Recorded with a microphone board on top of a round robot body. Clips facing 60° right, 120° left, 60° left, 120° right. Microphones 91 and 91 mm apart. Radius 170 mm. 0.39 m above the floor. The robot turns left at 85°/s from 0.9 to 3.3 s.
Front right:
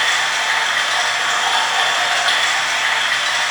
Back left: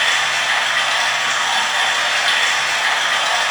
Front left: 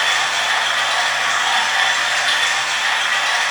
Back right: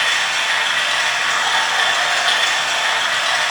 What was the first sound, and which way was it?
Running water, straight ahead.